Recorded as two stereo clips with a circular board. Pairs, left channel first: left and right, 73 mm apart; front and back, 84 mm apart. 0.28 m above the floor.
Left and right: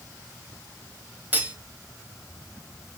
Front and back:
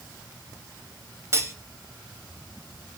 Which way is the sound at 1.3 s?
140° right.